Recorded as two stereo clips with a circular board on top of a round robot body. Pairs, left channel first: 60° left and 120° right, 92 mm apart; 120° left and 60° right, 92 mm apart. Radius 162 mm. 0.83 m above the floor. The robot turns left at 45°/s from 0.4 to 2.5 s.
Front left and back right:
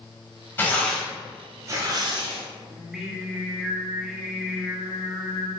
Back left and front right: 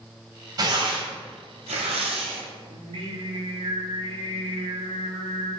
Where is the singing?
35° right, 1.5 m.